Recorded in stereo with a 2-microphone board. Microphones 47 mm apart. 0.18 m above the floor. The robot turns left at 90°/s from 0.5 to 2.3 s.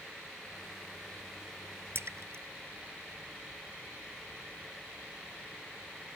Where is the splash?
60° right (ahead or behind); by 2.4 s 75° right (ahead or behind).